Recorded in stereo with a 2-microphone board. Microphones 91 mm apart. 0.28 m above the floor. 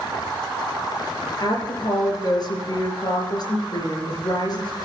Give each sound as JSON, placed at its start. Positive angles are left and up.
{"t": 1.4, "sound": "a woman speaking", "side_deg": 50, "distance_m": 4.5}